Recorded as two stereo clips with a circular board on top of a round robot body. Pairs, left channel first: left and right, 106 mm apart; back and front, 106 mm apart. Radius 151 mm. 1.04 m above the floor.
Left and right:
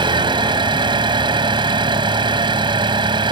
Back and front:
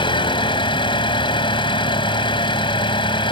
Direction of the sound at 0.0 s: 135° right.